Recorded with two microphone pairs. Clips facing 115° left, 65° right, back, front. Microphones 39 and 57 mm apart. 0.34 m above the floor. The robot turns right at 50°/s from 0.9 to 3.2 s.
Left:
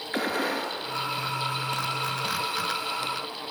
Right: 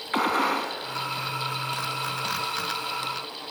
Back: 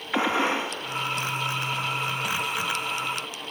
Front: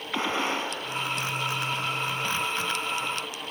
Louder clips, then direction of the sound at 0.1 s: Right 4 dB, back 4 dB; 105° right.